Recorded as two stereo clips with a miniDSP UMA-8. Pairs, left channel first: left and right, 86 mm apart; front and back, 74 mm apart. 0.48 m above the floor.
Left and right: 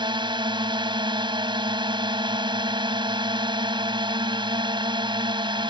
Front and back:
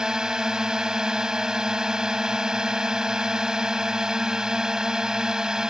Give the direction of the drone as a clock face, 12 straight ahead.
3 o'clock.